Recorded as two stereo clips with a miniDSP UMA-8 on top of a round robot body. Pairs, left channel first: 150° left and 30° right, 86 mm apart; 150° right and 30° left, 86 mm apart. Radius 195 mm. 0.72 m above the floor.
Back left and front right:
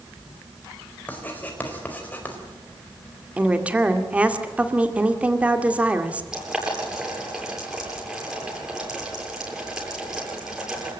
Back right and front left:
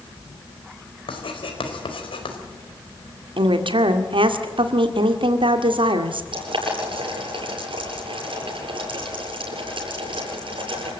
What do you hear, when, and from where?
1.1 s writing: 140° right, 4.5 m
3.4 s a woman speaking: 45° left, 2.5 m
6.3 s boiling: 50° left, 8.5 m